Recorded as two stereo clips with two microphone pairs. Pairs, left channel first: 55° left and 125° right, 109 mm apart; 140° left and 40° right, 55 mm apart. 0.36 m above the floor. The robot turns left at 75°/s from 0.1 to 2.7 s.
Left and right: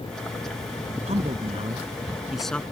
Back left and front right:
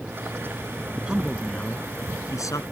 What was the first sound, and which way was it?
A man speaking, 110° right.